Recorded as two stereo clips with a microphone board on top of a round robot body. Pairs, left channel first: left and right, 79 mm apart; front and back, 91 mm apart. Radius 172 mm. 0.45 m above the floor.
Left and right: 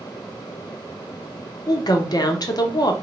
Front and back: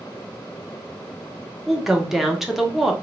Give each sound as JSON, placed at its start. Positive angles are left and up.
{"t": 1.7, "sound": "a woman speaking", "azimuth_deg": 95, "distance_m": 1.3}